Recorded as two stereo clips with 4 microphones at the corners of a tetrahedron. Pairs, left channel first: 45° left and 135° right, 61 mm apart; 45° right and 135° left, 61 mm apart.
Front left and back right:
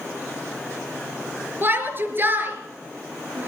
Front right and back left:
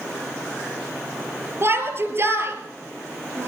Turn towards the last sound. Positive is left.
turn(degrees=175)